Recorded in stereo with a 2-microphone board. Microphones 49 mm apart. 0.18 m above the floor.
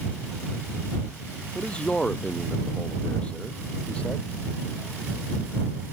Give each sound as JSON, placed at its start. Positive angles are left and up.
{"t": 1.6, "sound": "a man speaking", "side_deg": 20}